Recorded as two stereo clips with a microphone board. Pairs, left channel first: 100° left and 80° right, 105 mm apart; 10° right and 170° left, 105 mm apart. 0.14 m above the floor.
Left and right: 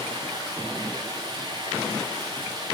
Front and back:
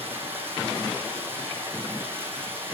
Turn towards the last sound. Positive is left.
turn(degrees=-120)